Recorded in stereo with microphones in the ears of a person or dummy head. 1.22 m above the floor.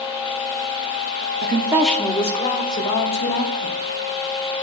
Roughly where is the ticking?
No ticking in this recording.